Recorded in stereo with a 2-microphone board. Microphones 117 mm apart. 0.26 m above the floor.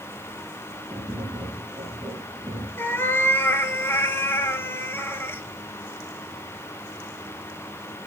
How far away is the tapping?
About 3.5 m.